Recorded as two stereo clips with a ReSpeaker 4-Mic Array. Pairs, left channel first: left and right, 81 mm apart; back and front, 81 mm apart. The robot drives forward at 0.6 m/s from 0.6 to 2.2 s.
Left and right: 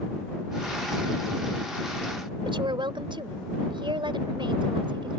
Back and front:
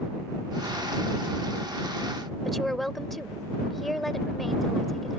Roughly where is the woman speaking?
Right.